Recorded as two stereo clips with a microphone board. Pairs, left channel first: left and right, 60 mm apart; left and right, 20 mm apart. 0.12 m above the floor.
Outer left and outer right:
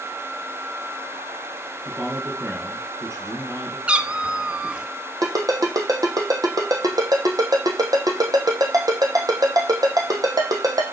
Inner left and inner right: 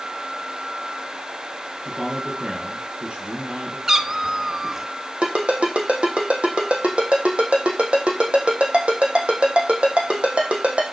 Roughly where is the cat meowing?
Centre.